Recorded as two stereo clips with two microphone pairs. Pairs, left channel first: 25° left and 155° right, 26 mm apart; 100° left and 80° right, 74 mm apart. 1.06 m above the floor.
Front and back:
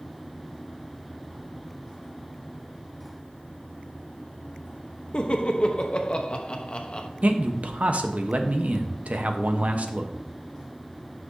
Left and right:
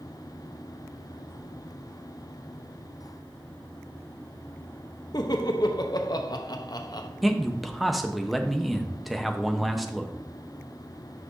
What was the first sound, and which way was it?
Laughter, 75° left.